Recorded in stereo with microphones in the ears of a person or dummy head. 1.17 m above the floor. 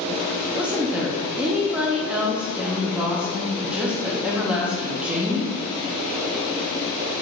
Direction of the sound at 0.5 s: 5° right (ahead or behind).